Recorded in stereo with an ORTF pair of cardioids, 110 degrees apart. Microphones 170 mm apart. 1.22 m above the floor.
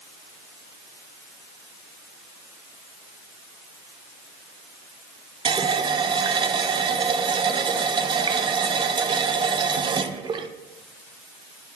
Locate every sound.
5.5 s a running tap: 30° right, 0.6 m